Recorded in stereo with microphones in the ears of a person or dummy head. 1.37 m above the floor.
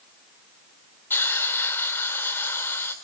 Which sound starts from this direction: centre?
A hiss, at 1.1 s.